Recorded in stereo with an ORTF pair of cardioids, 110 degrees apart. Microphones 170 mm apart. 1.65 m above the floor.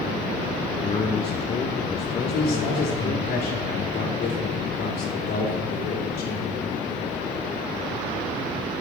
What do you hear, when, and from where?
0.8 s a man speaking: 35° left, 1.1 m
2.2 s a man speaking: 70° left, 4 m